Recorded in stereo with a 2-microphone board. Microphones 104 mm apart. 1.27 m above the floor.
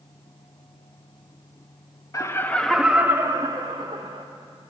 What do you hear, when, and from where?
2.1 s laughter: 35° left (ahead or behind), 0.6 m; by 4.2 s 55° right (ahead or behind), 1.0 m